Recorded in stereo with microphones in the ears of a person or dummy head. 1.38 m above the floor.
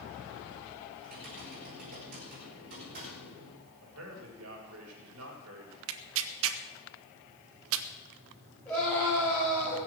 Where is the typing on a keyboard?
50° right (ahead or behind), 6.5 m.